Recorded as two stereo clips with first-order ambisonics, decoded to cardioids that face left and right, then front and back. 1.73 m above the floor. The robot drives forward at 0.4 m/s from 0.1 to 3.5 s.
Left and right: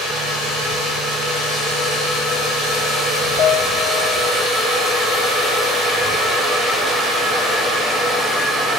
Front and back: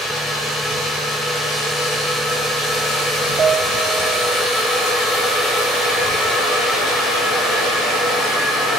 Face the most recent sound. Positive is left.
turn(degrees=130)